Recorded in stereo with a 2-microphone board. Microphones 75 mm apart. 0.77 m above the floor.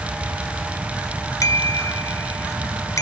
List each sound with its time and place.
1.4 s a bicycle bell: 45° left (ahead or behind)